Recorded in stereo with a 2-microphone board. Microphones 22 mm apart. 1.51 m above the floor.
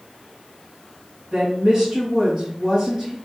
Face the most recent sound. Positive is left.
turn(degrees=-20)  # may be behind; listen again after turning